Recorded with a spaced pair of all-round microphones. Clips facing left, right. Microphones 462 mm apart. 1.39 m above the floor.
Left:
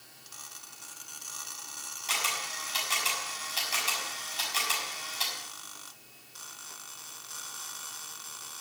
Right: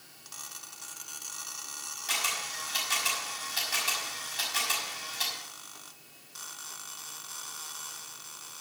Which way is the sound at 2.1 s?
35° right (ahead or behind).